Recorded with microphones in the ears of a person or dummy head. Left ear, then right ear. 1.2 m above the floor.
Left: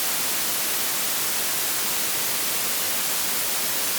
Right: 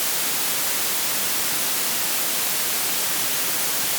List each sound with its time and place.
Only background noise.